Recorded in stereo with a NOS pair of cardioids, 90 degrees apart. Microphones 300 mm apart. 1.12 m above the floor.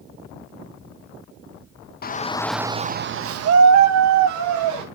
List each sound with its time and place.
2.0 s a shout: 35° left, 0.9 m; by 4.8 s 80° right, 2 m